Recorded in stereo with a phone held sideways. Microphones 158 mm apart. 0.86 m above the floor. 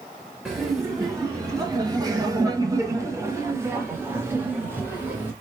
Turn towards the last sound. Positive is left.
turn(degrees=-15)  # may be behind; listen again after turning